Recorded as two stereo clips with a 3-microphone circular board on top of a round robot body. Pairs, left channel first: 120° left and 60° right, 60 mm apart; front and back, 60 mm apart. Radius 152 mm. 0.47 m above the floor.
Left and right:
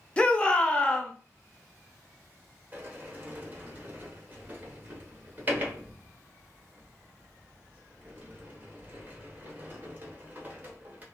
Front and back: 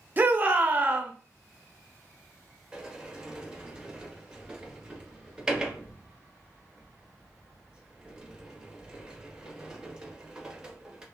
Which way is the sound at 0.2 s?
170° left.